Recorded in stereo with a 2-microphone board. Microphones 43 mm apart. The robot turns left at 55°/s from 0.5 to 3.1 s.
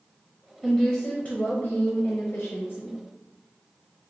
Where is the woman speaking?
175° left, 0.6 m; by 3.0 s 45° left, 0.6 m.